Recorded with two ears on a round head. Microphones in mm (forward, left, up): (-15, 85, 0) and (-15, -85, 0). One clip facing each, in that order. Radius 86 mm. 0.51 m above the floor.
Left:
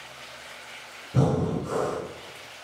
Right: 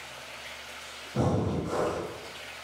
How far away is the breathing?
About 1.7 m.